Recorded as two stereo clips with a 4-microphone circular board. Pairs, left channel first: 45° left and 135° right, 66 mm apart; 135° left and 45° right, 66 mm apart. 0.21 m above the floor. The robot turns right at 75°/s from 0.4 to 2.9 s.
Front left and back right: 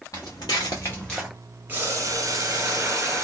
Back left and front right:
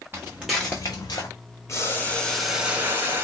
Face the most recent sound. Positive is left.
turn(degrees=-100)